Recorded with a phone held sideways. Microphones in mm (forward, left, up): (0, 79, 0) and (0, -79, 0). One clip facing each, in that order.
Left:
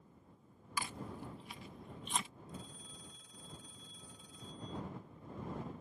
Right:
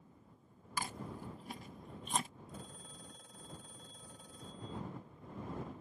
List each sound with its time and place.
0.8 s chewing: 45° right (ahead or behind)
2.5 s a phone ringing: 55° right (ahead or behind)